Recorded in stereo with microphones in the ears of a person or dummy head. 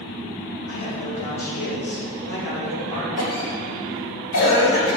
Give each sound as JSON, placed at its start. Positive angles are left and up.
{"t": 0.7, "sound": "a man speaking", "side_deg": 80, "distance_m": 2.5}
{"t": 3.2, "sound": "a cough", "side_deg": 70, "distance_m": 3.0}